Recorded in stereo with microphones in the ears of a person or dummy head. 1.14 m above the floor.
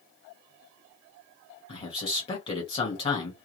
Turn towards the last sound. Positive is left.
turn(degrees=20)  # may be behind; listen again after turning